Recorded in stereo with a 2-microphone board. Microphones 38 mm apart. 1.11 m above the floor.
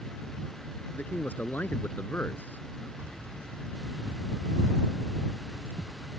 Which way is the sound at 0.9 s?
50° left (ahead or behind).